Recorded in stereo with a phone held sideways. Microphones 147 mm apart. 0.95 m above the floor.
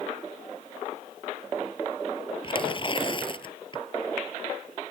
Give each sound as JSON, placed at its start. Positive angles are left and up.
{"t": 2.4, "sound": "tearing paper", "side_deg": 35}